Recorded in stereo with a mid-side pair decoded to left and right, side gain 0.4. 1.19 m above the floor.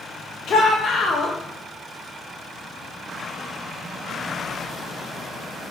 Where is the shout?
65° left, 0.6 m.